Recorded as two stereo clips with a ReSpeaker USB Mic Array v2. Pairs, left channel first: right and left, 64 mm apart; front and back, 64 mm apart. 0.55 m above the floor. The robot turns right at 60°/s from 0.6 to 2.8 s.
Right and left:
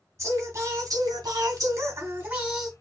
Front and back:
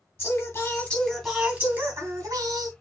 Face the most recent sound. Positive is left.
turn(degrees=180)